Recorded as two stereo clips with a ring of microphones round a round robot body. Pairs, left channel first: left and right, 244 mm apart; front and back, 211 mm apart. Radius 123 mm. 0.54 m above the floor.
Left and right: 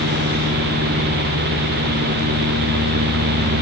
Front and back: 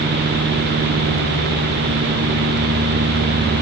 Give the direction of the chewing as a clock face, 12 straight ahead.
I don't hear chewing.